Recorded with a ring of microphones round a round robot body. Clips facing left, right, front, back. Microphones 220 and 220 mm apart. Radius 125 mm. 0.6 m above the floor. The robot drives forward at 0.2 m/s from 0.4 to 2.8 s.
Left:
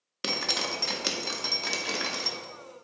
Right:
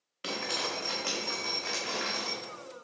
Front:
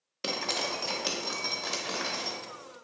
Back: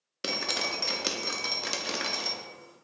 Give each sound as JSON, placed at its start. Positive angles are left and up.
{"t": 0.2, "sound": "dripping", "azimuth_deg": 105, "distance_m": 0.6}